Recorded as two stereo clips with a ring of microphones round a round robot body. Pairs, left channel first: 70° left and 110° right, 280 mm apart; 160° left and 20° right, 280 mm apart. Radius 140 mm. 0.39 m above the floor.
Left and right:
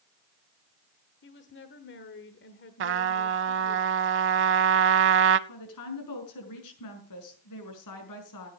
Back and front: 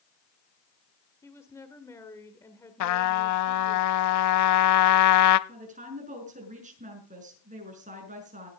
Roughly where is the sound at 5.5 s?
Ahead left.